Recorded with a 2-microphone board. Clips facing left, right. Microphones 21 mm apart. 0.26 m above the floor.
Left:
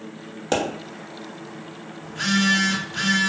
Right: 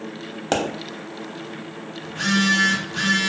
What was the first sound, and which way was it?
A pop, 15° right (ahead or behind).